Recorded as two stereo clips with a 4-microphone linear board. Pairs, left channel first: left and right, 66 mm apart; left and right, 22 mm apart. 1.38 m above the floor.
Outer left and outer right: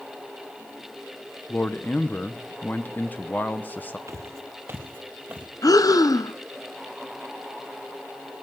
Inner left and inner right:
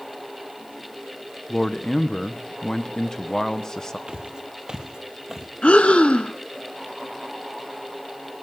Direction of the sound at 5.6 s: 65° left (ahead or behind).